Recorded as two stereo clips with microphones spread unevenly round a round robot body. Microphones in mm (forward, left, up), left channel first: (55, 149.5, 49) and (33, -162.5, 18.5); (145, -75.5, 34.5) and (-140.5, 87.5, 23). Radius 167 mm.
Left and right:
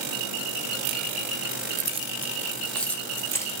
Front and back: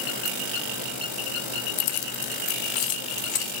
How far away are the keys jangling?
About 0.5 m.